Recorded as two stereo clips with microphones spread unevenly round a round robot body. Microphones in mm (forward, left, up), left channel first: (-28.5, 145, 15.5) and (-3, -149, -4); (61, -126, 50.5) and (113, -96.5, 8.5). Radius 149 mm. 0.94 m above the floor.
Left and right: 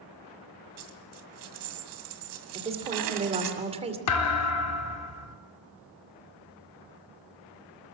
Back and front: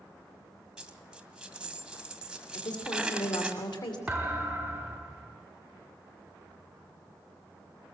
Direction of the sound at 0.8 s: 60° right.